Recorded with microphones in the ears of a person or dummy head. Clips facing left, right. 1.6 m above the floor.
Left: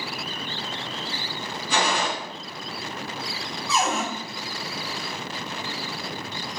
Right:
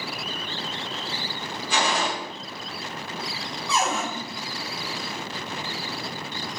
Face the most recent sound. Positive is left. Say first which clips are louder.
# left 1 dB
turn(degrees=5)  # may be behind; listen again after turning